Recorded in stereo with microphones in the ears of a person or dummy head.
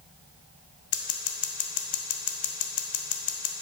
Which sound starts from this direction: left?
Scissors, at 0.9 s.